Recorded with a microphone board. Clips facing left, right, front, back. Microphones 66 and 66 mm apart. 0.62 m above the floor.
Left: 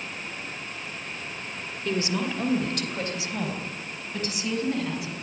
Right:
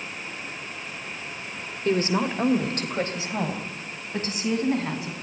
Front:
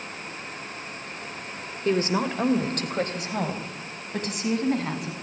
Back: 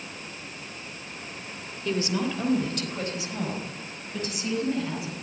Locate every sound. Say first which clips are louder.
1.9 s a woman speaking: right 4 dB, front 4 dB; 45° right, 2.5 m; by 5.1 s 30° right, 6 m